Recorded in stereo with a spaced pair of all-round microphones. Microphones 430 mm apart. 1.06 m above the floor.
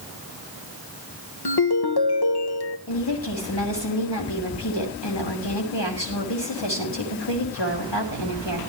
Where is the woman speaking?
75° left (ahead or behind), 6.5 m.